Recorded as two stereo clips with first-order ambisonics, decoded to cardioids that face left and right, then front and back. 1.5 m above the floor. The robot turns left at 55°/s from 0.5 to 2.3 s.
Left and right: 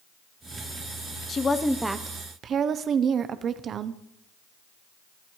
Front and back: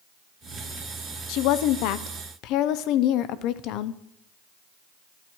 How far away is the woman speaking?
About 0.7 m.